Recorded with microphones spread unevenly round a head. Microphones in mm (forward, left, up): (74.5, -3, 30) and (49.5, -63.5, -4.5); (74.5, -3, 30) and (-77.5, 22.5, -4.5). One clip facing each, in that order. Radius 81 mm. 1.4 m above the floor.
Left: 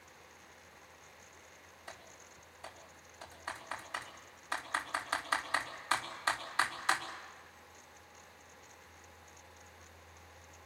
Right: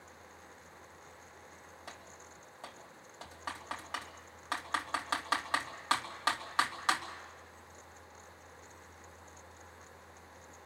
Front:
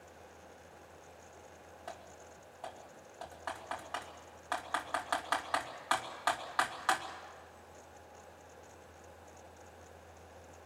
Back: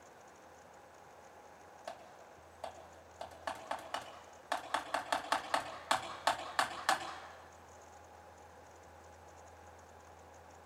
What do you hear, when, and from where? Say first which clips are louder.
1.9 s typing on a keyboard: even, even; 120° right, 3 m